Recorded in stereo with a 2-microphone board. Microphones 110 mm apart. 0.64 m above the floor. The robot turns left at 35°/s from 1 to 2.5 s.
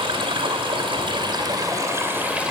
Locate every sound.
0.0 s running water: 120° right, 2.5 m; by 2.5 s 170° right, 2.5 m